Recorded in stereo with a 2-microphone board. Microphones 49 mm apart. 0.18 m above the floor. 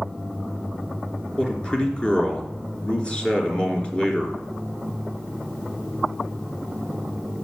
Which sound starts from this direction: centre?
A man speaking, at 1.4 s.